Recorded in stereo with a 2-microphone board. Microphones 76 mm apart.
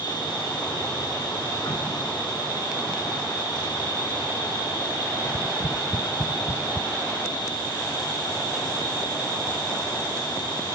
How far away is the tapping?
About 0.8 m.